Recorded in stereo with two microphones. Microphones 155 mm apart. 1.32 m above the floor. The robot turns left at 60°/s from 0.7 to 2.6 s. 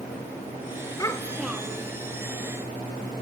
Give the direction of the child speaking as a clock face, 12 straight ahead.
11 o'clock.